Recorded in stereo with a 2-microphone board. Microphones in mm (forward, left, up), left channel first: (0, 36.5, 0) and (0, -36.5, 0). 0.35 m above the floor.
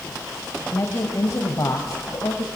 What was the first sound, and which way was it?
A woman speaking, 40° left (ahead or behind).